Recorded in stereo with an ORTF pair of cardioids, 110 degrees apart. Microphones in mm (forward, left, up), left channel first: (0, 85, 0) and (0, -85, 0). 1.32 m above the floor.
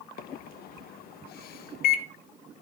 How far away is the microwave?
About 1.0 m.